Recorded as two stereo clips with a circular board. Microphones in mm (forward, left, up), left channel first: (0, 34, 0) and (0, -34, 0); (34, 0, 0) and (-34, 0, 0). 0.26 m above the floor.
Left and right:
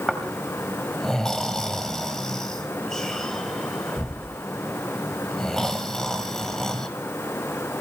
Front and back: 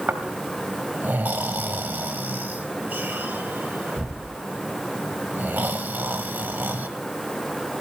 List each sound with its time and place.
0.1 s snoring: 165° left, 1.6 m